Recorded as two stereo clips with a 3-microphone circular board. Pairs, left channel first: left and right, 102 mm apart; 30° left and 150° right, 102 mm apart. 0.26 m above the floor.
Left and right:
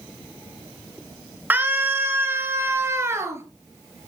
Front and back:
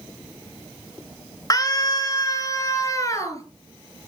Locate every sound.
1.5 s a scream: 20° right, 3 m; by 3.4 s 30° right, 4 m